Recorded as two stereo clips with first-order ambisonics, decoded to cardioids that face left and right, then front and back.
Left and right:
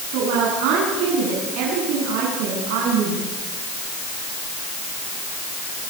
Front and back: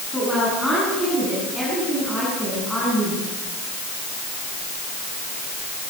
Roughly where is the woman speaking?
Right.